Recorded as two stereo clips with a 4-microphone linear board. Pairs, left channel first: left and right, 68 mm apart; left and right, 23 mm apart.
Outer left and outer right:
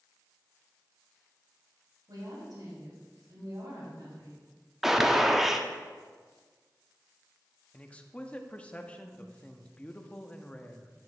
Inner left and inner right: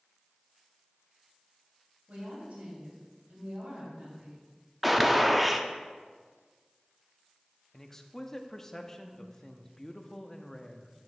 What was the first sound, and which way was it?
A woman speaking, 65° right (ahead or behind).